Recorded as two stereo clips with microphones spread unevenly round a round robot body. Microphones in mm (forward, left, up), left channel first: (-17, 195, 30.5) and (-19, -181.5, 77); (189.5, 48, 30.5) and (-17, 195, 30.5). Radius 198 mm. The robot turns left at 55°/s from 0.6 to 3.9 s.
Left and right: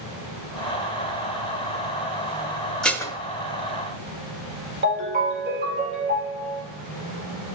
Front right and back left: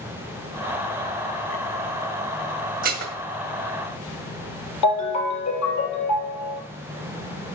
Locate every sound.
2.8 s dishes clattering: 170° left, 0.8 m; by 3.2 s 150° left, 0.8 m
4.8 s a ringtone: 25° right, 4 m